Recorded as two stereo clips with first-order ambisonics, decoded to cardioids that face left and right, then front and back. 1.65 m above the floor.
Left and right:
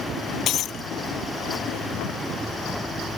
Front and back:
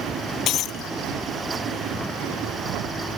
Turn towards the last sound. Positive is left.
turn(degrees=45)